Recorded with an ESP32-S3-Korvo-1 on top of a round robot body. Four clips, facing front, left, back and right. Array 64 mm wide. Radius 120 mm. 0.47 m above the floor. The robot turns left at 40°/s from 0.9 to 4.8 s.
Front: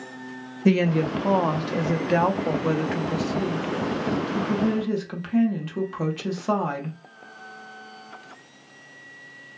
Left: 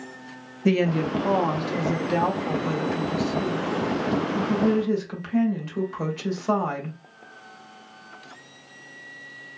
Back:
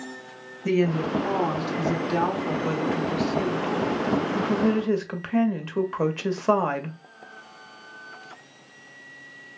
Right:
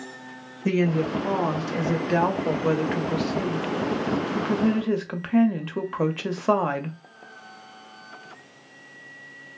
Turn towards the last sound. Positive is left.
turn(degrees=-130)